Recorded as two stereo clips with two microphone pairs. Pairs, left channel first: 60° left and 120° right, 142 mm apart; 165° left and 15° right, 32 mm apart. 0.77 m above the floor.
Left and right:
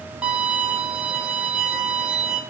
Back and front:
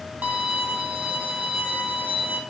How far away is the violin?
About 3 m.